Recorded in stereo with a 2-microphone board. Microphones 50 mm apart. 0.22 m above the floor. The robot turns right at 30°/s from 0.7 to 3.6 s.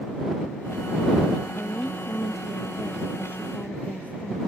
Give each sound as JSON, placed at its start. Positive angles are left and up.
{"t": 1.5, "sound": "a woman speaking", "azimuth_deg": 85}